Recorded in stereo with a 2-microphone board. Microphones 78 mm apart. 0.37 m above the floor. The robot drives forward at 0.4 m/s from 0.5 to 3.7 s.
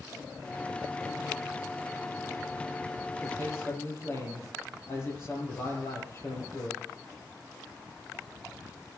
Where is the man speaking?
35° left (ahead or behind), 8.5 m.